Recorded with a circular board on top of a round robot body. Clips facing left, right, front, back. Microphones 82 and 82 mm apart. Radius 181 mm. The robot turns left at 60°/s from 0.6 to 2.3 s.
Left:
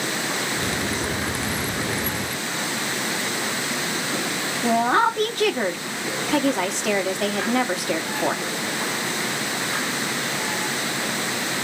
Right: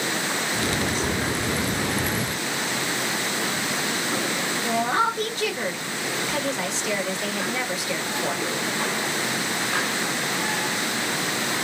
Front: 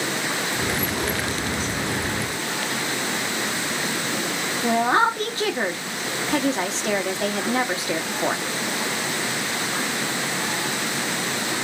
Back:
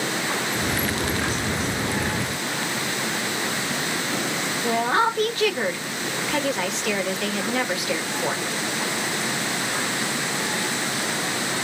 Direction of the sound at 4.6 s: 55° left.